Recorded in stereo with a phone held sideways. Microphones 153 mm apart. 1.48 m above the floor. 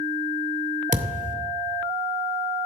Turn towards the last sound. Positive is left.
turn(degrees=-55)  # may be behind; listen again after turning